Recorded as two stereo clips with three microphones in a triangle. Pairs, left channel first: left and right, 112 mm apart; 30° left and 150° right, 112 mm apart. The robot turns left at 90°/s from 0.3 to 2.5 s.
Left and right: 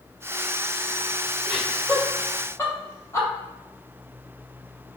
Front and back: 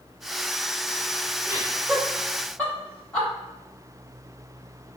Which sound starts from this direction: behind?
Laughter, at 1.4 s.